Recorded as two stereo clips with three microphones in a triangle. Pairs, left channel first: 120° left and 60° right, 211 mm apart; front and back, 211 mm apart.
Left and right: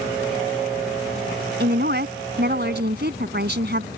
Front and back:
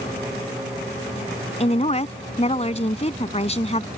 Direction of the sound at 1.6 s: 50° right.